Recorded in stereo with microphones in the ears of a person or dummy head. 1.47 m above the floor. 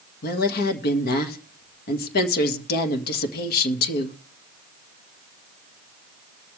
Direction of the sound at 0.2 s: 55° left (ahead or behind).